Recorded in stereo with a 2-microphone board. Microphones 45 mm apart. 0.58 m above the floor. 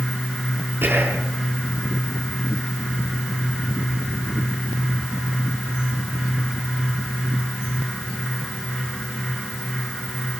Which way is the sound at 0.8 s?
50° right (ahead or behind).